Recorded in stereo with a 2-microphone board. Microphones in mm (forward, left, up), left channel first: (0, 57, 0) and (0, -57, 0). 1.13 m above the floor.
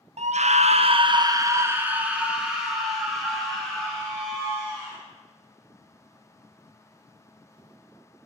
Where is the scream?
75° right (ahead or behind), 0.6 m; by 5.0 s 5° left (ahead or behind), 2.5 m.